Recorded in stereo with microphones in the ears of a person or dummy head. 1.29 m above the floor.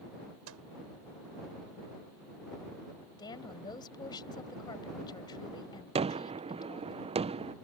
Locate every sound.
0.5 s a microwave: 80° right
3.2 s a woman speaking: 25° left (ahead or behind)
6.0 s a gunshot: 30° right (ahead or behind)